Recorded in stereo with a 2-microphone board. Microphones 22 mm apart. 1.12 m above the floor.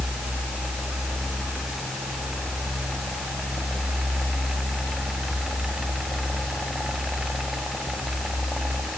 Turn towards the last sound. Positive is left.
No sound to turn to.